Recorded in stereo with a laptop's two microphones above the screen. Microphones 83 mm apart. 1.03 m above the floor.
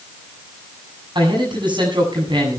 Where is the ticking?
No ticking in this recording.